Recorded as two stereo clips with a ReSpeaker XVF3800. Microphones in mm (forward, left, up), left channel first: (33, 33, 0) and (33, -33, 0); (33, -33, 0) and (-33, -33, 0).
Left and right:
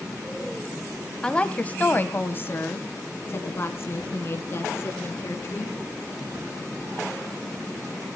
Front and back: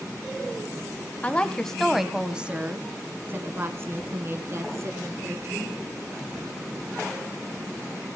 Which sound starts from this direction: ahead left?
A woman speaking, at 1.2 s.